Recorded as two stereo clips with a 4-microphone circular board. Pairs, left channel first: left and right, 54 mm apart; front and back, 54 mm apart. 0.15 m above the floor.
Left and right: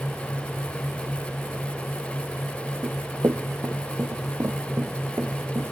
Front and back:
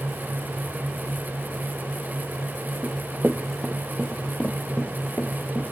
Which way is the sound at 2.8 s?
110° right.